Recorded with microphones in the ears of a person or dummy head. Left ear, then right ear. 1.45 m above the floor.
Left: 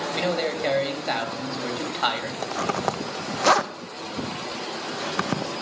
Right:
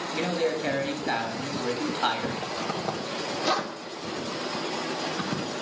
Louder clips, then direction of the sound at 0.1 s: Even; 20° left (ahead or behind).